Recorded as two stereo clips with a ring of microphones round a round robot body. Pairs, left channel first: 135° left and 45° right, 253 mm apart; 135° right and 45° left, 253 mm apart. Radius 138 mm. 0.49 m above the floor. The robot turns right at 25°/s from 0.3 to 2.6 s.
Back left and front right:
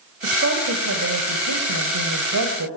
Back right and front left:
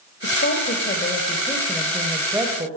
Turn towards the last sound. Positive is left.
turn(degrees=-30)